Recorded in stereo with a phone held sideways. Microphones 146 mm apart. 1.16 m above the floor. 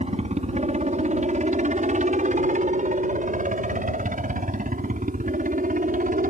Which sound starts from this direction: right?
A helicopter, at 0.0 s.